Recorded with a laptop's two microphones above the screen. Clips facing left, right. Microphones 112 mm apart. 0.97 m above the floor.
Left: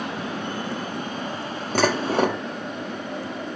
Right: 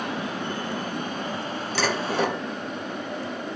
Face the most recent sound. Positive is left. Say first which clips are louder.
# left 5 dB
turn(degrees=50)  # may be behind; listen again after turning